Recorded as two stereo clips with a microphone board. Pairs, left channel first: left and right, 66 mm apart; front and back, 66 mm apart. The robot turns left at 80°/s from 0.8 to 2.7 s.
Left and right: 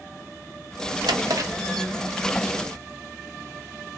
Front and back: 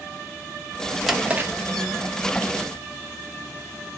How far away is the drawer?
About 0.6 m.